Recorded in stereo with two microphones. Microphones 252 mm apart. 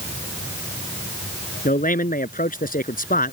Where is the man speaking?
35° left (ahead or behind).